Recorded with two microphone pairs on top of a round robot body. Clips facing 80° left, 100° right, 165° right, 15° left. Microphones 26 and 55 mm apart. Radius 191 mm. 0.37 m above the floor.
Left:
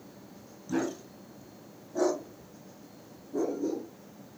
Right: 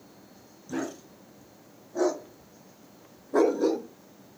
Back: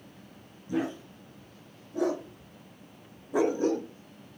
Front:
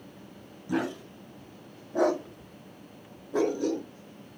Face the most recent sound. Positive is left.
turn(degrees=-115)